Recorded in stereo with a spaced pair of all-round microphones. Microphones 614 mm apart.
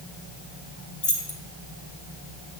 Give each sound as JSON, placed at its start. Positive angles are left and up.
{"t": 1.0, "sound": "keys jangling", "side_deg": 55, "distance_m": 1.0}